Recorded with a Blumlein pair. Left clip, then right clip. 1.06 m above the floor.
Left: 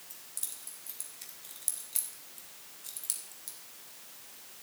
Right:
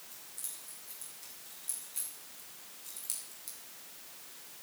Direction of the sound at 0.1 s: 55° left.